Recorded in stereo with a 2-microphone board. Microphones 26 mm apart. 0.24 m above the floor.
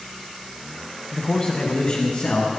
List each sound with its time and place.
1.1 s a man speaking: 25° left (ahead or behind), 1.3 m; by 2.5 s 55° left (ahead or behind), 2 m